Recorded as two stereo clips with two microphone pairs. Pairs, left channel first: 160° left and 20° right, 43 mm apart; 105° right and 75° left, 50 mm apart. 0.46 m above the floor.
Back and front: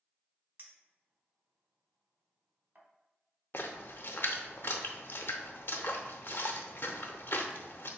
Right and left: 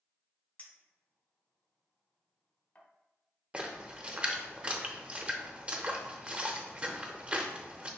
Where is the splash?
140° left, 0.6 m.